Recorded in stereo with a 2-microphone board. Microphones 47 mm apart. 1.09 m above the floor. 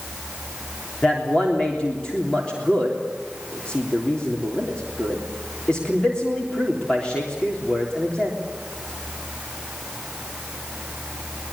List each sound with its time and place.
1.0 s a man speaking: 20° left (ahead or behind), 3.5 m